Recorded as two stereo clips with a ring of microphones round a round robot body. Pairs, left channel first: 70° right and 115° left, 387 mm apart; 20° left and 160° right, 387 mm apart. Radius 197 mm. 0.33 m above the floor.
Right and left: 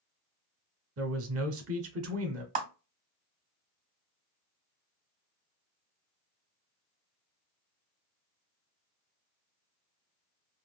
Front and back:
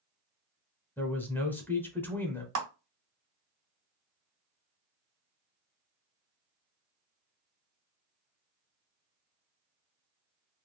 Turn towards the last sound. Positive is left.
turn(degrees=180)